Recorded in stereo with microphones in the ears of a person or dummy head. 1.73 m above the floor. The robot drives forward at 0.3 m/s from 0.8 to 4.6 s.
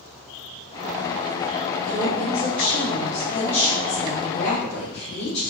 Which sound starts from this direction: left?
A woman speaking, at 1.9 s.